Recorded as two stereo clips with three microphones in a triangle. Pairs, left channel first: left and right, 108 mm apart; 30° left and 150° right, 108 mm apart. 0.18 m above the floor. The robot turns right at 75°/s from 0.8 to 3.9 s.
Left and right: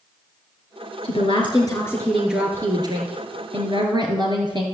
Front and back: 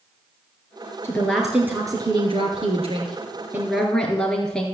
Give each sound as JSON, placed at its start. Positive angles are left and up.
{"t": 1.0, "sound": "a woman speaking", "azimuth_deg": 95, "distance_m": 2.5}